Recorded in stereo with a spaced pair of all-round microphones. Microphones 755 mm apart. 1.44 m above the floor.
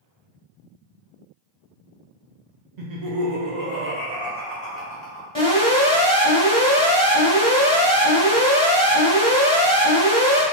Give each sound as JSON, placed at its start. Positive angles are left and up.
{"t": 2.8, "sound": "laughter", "side_deg": -65, "distance_m": 0.7}
{"t": 5.3, "sound": "an alarm", "side_deg": 5, "distance_m": 1.4}